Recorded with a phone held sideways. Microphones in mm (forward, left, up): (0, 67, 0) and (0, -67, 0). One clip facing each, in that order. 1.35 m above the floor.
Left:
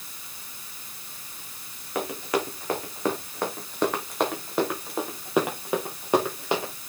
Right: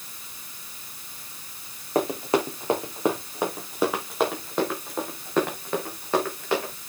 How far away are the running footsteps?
About 4.5 m.